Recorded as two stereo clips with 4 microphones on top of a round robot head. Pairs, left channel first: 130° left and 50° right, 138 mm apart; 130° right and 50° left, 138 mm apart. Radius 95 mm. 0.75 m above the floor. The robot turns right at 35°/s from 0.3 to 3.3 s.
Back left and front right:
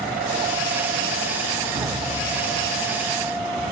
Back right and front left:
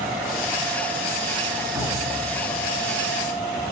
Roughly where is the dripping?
Ahead.